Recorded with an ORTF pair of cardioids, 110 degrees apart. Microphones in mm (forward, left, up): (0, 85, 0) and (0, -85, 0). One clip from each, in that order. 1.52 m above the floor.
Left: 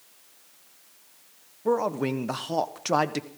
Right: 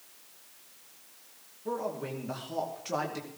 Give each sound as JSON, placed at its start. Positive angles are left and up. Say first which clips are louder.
{"t": 1.6, "sound": "a man speaking", "louder": "left 9 dB", "azimuth_deg": 65, "distance_m": 1.1}